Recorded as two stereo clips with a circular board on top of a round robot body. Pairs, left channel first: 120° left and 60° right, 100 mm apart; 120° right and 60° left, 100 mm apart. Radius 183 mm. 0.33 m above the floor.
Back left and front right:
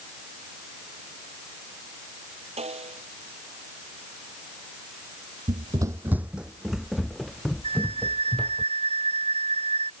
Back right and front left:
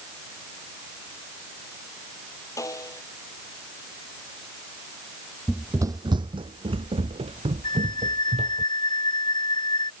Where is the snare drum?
60° right.